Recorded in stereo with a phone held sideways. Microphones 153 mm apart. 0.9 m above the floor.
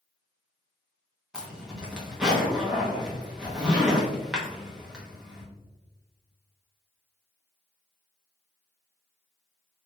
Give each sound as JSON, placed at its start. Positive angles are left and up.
{"t": 1.3, "sound": "a zipper", "side_deg": -5, "distance_m": 0.9}